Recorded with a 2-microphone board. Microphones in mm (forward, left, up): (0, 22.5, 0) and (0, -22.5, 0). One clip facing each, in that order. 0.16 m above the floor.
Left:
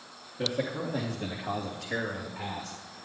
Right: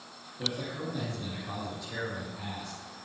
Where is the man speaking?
50° left (ahead or behind), 2 m.